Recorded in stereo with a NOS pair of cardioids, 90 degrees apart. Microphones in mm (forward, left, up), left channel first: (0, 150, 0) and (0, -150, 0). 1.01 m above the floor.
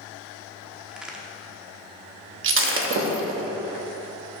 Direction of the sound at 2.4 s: 45° right.